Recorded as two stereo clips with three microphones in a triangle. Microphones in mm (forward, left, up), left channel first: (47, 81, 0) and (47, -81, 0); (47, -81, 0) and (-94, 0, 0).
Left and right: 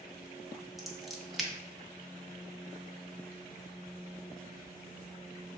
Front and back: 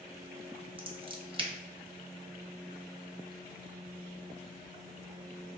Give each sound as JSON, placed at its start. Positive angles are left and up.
{"t": 0.8, "sound": "scissors", "azimuth_deg": 180, "distance_m": 0.6}